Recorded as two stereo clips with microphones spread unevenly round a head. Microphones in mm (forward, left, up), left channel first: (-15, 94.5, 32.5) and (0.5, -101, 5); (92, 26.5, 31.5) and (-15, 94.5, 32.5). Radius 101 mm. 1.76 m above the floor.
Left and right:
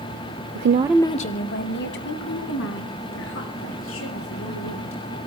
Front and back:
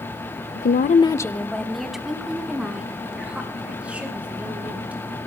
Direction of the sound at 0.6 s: 60° right.